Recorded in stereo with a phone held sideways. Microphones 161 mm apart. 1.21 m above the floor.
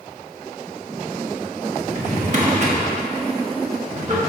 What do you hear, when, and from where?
1.9 s a drawer: 50° right (ahead or behind), 1.3 m